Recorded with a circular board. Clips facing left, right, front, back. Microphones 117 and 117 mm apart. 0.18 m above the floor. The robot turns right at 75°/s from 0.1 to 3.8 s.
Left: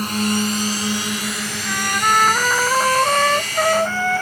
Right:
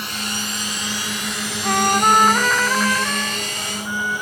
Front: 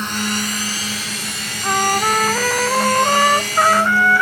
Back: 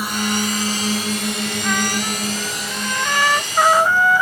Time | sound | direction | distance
0.0 | a drone | 105° left | ?
1.6 | a trumpet | 60° right | ?